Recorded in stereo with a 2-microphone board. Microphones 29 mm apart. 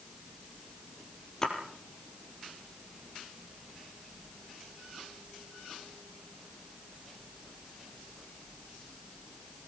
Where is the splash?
15° left (ahead or behind), 4 m.